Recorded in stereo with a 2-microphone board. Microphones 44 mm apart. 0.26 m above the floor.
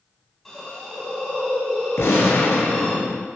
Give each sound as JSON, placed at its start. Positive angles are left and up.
{"t": 0.5, "sound": "a hiss", "side_deg": 5, "distance_m": 1.1}
{"t": 2.0, "sound": "a gunshot", "side_deg": 85, "distance_m": 0.7}